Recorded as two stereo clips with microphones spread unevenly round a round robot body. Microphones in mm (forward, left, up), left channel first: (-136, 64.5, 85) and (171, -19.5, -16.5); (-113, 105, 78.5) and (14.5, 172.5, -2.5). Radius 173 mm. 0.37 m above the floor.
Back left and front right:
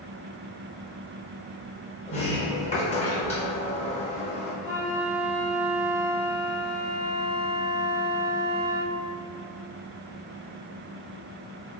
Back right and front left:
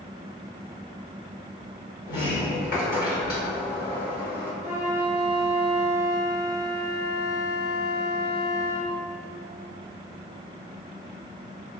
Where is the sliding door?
110° right, 0.8 m.